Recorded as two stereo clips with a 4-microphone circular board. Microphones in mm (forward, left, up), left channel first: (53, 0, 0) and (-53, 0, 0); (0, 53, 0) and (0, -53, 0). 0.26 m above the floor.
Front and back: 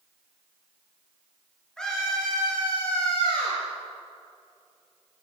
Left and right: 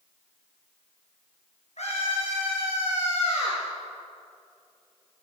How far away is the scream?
About 5.5 m.